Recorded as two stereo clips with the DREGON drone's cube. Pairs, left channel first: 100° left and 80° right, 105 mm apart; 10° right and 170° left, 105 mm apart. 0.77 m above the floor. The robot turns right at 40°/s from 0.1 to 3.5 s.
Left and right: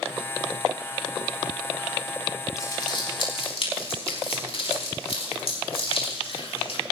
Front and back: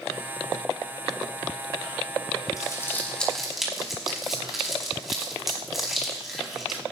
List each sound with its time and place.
2.6 s crumpling: 45° left, 5 m; by 6.8 s 80° left, 5 m